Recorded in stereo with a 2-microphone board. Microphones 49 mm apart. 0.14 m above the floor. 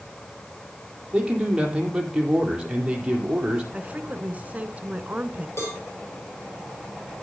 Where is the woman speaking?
30° right (ahead or behind), 1.3 m.